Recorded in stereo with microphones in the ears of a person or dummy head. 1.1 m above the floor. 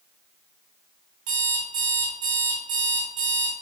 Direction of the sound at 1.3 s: 80° right.